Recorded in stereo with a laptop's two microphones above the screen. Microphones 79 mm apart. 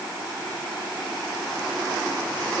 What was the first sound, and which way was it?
Only background noise.